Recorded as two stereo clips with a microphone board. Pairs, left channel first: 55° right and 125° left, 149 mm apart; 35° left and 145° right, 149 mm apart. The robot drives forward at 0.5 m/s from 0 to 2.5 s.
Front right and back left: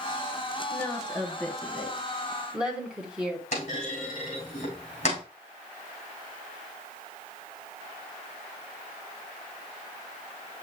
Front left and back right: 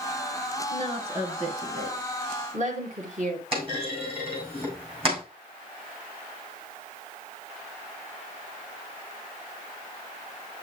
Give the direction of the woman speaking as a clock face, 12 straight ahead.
4 o'clock.